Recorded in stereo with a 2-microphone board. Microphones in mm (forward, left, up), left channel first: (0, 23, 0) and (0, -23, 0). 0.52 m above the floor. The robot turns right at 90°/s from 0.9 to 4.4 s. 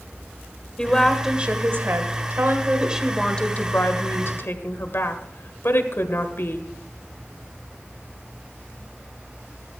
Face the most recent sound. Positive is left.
turn(degrees=115)